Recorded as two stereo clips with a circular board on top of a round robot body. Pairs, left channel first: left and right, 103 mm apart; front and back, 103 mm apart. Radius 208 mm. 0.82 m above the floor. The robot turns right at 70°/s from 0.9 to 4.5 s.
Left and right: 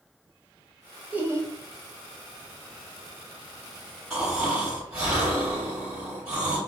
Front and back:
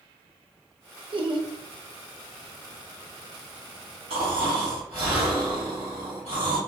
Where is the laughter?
165° right, 0.9 m; by 1.5 s 140° right, 0.9 m.